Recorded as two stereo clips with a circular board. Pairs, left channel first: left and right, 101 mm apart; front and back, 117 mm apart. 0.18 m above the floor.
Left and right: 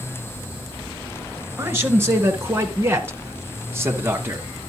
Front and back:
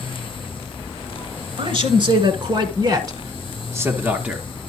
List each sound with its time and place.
1.6 s a man speaking: 150° right, 2 m; by 4.4 s 110° right, 1.1 m